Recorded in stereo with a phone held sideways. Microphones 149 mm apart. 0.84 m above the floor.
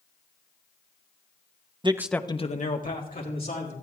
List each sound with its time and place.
1.8 s a man speaking: 35° right (ahead or behind), 0.7 m; by 3.7 s 75° left (ahead or behind), 2.5 m